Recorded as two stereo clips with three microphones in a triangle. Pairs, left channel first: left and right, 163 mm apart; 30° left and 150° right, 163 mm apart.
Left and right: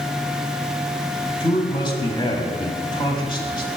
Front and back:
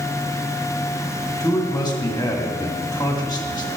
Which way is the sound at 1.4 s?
65° left.